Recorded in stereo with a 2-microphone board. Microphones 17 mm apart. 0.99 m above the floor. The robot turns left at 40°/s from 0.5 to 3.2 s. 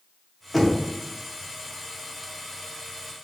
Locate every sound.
0.5 s knocking: centre (ahead or behind), 0.7 m; by 0.8 s 10° right (ahead or behind), 0.7 m